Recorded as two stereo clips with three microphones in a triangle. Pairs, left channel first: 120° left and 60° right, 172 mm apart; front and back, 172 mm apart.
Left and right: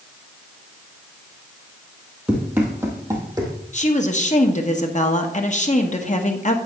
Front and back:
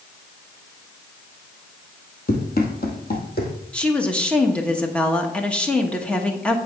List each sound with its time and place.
2.3 s running footsteps: 25° left, 2 m; by 3.5 s 10° left, 2.5 m
3.7 s a woman speaking: 80° left, 1.2 m